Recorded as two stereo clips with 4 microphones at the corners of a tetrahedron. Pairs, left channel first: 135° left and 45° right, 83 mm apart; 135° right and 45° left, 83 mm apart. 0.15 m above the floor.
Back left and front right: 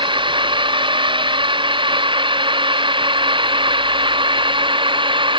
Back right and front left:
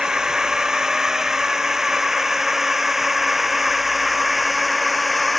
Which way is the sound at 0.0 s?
40° right.